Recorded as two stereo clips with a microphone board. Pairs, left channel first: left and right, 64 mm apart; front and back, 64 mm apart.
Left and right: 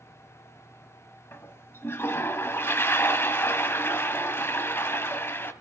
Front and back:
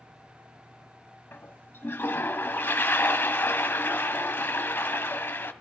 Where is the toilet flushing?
50° left, 1.2 m.